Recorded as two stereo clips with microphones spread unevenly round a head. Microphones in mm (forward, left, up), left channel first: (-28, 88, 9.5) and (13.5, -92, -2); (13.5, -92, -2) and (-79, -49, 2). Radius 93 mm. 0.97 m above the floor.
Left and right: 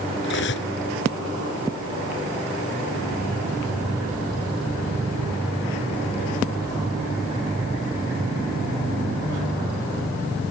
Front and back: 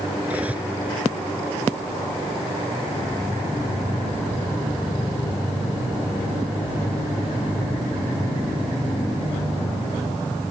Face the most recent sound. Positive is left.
turn(degrees=70)